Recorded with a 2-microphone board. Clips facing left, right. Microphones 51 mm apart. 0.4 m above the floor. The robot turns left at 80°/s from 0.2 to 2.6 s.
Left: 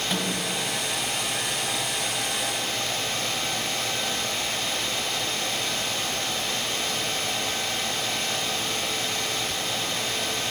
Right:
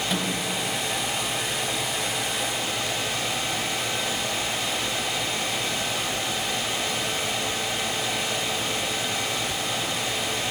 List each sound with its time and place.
0.1 s a microwave: centre (ahead or behind), 1.9 m; by 0.3 s 10° left (ahead or behind), 1.9 m